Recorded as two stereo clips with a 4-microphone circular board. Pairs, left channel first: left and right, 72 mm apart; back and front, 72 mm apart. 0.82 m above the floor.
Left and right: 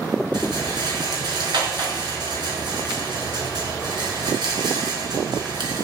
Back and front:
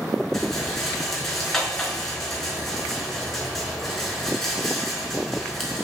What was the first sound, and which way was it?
A rattle, 95° right.